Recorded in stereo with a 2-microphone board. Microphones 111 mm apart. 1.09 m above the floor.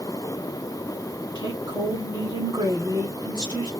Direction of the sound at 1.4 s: 45° right (ahead or behind).